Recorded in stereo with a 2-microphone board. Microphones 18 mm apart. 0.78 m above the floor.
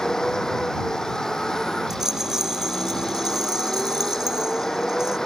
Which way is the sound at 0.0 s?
30° left (ahead or behind).